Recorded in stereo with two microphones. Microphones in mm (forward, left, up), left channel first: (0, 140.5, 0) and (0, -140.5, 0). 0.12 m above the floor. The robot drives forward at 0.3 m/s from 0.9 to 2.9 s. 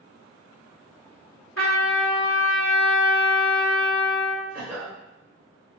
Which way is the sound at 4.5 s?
5° right (ahead or behind).